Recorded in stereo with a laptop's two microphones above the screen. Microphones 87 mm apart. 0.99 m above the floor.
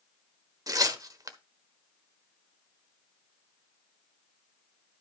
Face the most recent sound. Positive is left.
turn(degrees=-40)  # may be behind; listen again after turning